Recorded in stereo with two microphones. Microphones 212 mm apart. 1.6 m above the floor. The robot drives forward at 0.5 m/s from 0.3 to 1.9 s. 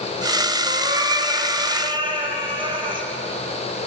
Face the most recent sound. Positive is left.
turn(degrees=-25)  # may be behind; listen again after turning